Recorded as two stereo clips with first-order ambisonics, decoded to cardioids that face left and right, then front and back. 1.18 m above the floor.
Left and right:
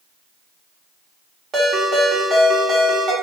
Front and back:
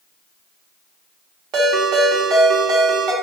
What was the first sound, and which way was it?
A ringtone, 150° right.